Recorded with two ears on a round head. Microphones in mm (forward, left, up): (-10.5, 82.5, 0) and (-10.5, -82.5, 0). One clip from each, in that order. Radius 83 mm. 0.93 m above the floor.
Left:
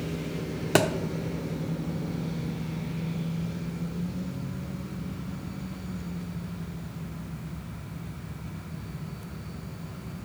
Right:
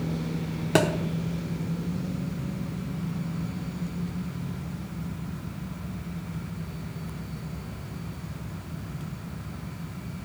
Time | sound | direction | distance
0.8 | a thud | 20° left (ahead or behind) | 0.7 m